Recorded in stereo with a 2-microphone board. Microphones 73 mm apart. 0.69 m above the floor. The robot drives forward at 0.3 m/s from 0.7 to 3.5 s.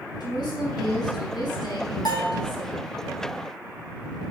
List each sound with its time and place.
0.2 s a woman speaking: 75° left (ahead or behind), 5 m; by 2.9 s 70° left (ahead or behind), 5.5 m
2.0 s a bell: 70° left (ahead or behind), 4 m; by 2.4 s 75° left (ahead or behind), 4 m